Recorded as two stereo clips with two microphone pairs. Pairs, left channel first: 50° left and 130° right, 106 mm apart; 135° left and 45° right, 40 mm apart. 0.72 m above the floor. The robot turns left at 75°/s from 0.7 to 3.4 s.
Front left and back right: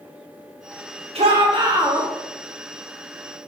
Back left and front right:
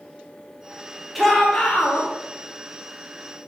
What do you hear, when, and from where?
1.1 s a shout: 135° right, 1.9 m; by 2.1 s 155° left, 1.9 m